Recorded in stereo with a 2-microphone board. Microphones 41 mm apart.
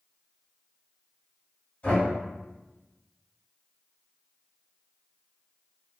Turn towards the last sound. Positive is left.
turn(degrees=35)  # may be behind; listen again after turning